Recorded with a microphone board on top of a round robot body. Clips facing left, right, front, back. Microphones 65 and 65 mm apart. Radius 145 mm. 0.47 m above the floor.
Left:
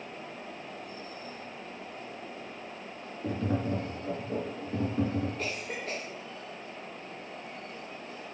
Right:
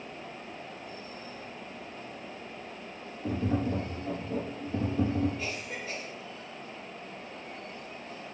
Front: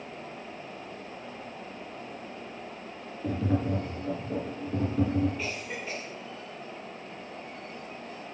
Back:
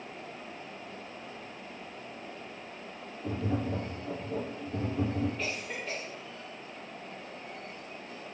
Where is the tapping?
40° left, 2 m.